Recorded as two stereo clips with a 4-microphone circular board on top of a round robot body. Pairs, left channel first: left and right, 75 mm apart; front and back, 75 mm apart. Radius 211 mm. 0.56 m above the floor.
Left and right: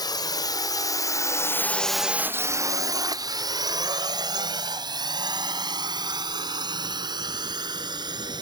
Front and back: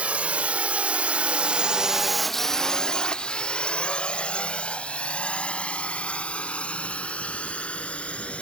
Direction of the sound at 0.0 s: 110° left.